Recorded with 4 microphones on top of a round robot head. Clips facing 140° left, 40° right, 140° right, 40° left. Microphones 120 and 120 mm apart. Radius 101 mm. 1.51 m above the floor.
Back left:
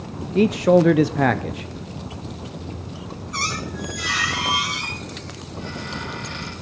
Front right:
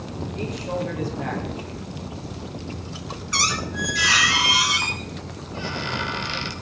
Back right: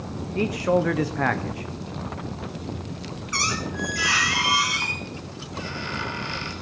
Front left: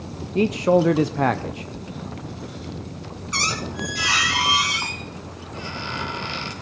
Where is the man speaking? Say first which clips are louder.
Back left 14 dB, front left 4 dB; 110° left, 0.5 m.